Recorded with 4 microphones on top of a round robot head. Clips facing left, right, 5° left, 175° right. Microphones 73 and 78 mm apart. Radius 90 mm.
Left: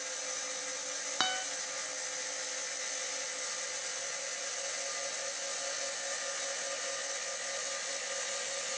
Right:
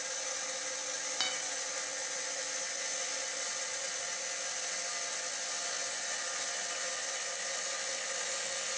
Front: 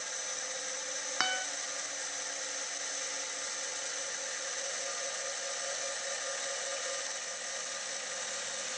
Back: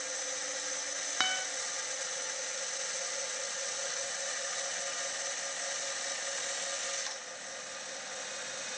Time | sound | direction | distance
1.2 | a guitar | 85° left | 1.8 m